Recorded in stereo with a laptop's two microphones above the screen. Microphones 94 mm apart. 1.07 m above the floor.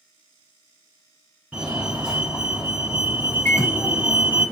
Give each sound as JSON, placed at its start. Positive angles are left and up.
{"t": 1.5, "sound": "a fire alarm", "side_deg": -10, "distance_m": 1.5}
{"t": 3.5, "sound": "a microwave", "side_deg": 20, "distance_m": 1.2}